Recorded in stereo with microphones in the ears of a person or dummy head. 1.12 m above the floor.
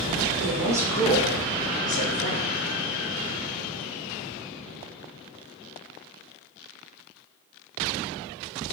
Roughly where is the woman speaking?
Right.